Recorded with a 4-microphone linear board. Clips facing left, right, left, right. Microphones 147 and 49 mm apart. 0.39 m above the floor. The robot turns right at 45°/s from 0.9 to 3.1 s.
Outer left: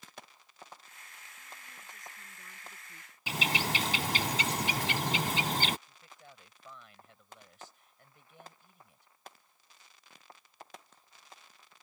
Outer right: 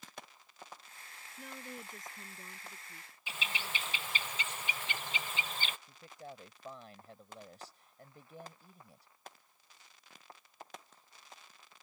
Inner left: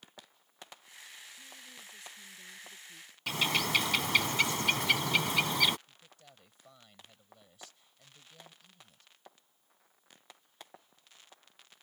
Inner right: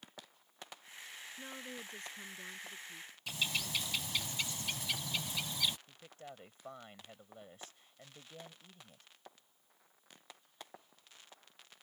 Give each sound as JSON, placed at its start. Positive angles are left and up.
{"t": 1.4, "sound": "a woman speaking", "azimuth_deg": -80}
{"t": 3.3, "sound": "a bird", "side_deg": 75}
{"t": 5.9, "sound": "a man speaking", "side_deg": -35}